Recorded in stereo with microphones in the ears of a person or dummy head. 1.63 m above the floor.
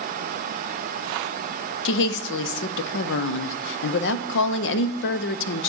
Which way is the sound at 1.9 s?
75° left (ahead or behind).